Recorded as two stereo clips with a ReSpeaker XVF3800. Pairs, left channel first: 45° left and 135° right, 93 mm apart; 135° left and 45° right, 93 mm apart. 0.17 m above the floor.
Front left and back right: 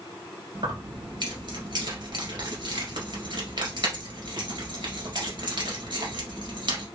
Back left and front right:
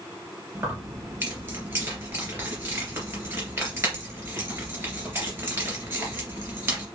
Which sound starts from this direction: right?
Keys jangling, at 0.6 s.